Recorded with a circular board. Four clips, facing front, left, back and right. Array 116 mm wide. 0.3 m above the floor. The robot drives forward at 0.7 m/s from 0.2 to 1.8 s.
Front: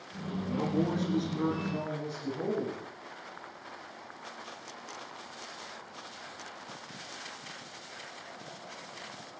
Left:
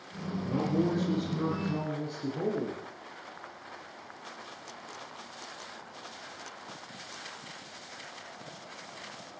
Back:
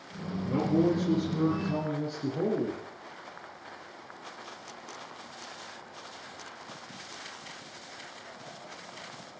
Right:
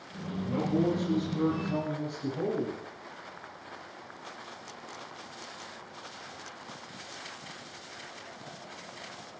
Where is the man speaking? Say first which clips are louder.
Right 1 dB, back 5 dB; 160° left, 6 m; by 2.8 s 165° left, 7 m.